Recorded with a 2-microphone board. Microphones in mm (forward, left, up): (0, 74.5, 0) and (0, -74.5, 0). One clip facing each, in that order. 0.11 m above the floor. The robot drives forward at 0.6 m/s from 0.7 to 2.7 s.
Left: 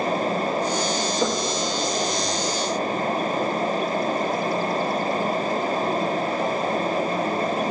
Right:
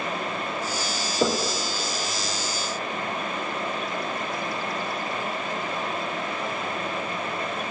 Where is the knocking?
35° right (ahead or behind), 1.3 m; by 1.5 s 30° right (ahead or behind), 1.4 m.